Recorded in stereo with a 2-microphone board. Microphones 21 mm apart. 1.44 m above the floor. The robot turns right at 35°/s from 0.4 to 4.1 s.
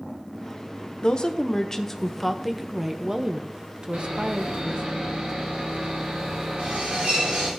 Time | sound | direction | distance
1.0 | a woman speaking | 135° left | 1.0 m
3.9 | sawing | 80° right | 3.5 m